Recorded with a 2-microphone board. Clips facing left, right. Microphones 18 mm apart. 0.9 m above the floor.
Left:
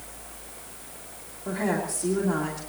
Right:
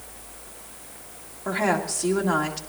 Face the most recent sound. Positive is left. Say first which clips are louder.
# right 4 dB
turn(degrees=-55)  # may be behind; listen again after turning